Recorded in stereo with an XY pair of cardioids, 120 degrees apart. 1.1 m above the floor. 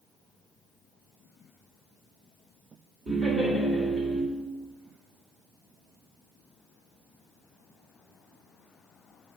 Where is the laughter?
20° right, 3 m.